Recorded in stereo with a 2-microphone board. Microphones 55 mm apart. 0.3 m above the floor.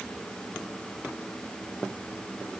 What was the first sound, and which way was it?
Only background noise.